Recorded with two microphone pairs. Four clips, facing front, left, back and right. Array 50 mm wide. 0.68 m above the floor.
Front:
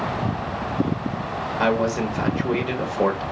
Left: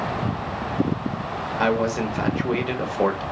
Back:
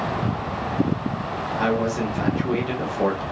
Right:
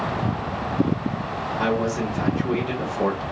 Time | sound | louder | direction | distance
1.6 | a man speaking | left 2 dB, front 2 dB | 65° left | 0.8 m